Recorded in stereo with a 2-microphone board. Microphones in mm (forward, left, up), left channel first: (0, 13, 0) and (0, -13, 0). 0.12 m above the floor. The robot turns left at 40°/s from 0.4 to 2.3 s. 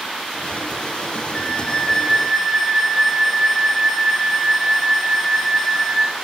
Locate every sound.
1.3 s a flute: 35° left, 0.7 m; by 6.2 s 5° right, 0.7 m